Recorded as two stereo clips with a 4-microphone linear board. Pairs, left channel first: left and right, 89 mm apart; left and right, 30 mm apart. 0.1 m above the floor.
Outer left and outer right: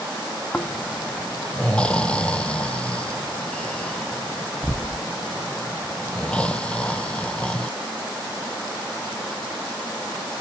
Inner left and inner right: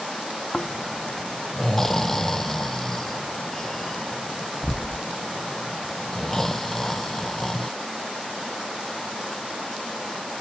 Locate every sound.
0.5 s snoring: 15° left (ahead or behind), 0.8 m